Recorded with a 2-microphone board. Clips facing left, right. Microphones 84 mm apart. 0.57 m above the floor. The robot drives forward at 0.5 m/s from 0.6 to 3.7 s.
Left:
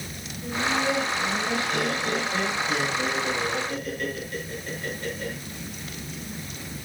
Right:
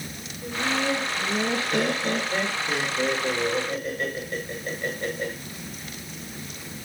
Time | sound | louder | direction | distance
0.4 | laughter | left 1 dB | 45° right (ahead or behind) | 6.5 m